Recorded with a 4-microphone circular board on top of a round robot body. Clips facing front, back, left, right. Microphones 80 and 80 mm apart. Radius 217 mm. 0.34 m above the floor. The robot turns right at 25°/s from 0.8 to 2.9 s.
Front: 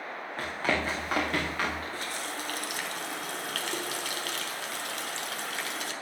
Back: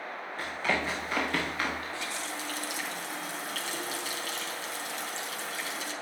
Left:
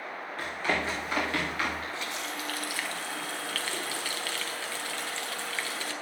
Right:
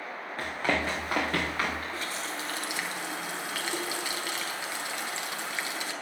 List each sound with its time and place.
0.4 s running footsteps: 40° right, 3 m; by 1.8 s 30° right, 4 m
1.9 s a running tap: 40° right, 1.6 m; by 5.9 s 15° right, 1.6 m